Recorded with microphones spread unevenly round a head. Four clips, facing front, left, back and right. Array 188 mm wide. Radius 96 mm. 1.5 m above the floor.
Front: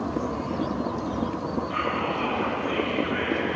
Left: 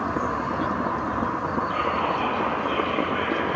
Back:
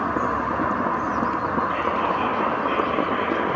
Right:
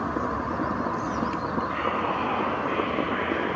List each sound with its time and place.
1.7 s whispering: 150° left, 8.5 m